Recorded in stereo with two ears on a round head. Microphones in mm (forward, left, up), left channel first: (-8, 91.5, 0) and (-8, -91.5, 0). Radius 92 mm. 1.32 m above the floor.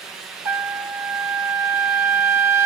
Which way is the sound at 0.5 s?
10° right (ahead or behind).